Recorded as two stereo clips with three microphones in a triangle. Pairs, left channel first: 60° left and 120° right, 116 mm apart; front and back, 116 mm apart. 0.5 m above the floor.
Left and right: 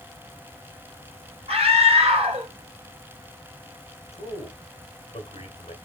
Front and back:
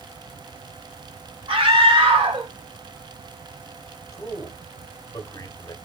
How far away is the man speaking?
About 1.5 m.